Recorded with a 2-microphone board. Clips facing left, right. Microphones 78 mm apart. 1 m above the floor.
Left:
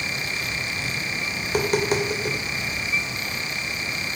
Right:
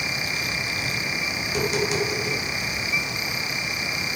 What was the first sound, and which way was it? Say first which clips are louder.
Tapping: left 3 dB; 45° left (ahead or behind).